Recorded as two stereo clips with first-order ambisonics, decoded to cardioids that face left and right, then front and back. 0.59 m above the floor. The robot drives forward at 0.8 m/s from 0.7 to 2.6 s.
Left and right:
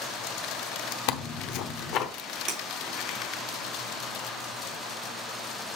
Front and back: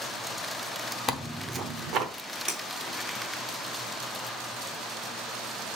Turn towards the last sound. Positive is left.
turn(degrees=-135)